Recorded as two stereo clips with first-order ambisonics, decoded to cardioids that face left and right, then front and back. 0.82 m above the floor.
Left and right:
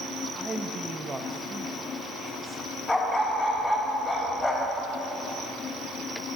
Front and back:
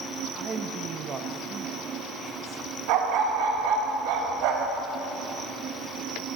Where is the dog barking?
175° left, 2 m.